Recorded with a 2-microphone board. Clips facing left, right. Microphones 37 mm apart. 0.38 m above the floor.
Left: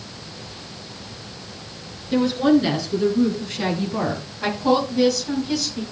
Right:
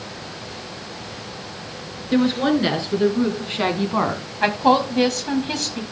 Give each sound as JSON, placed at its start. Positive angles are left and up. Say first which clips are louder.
{"t": 2.1, "sound": "a woman speaking", "louder": "left 1 dB", "side_deg": -25, "distance_m": 4.5}
{"t": 4.4, "sound": "a woman speaking", "louder": "right 3 dB", "side_deg": -50, "distance_m": 2.5}